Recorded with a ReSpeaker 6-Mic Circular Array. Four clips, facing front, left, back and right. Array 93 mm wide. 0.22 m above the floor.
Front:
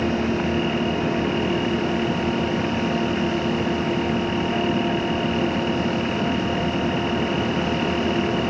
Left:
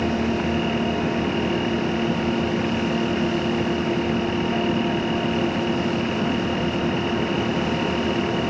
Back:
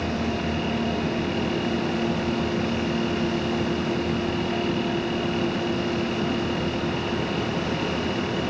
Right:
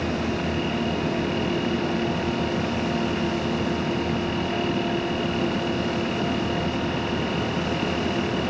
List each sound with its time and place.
Only background noise.